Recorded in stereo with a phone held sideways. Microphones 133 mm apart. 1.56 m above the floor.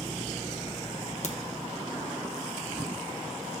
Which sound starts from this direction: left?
A crack, at 1.2 s.